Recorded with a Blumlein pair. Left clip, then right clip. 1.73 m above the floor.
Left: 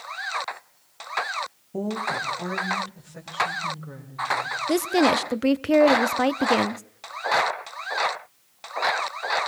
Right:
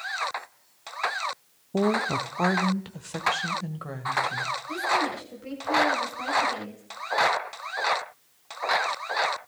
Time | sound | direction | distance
1.7 | a woman speaking | 20° right | 0.9 m
4.7 | a woman speaking | 40° left | 0.7 m